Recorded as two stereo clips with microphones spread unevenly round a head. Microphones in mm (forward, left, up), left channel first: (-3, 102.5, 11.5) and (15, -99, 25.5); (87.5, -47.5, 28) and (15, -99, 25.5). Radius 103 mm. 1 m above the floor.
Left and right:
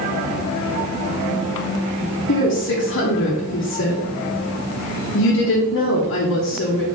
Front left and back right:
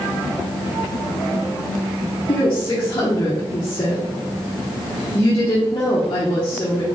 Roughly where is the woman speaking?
Left.